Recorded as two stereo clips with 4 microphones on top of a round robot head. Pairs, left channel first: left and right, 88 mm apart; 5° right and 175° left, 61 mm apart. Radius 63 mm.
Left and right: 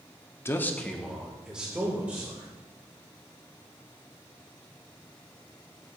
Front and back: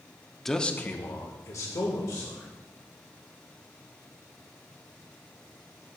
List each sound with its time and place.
0.5 s a man speaking: 75° left, 0.9 m; by 2.5 s 20° right, 2.5 m